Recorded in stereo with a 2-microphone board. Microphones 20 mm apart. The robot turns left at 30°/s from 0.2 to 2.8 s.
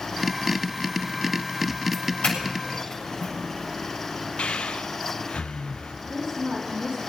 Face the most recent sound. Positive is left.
turn(degrees=-55)  # may be behind; listen again after turning